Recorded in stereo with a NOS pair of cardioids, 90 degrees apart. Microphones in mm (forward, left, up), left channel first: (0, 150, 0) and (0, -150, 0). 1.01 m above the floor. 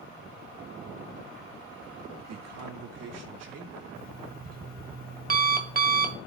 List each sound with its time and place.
2.3 s a man speaking: 65° right, 2 m; by 3.9 s 60° right, 4 m
4.0 s an alarm clock: 30° right, 1.7 m